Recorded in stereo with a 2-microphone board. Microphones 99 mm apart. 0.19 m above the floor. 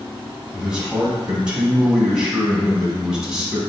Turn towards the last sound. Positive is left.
turn(degrees=-10)  # may be behind; listen again after turning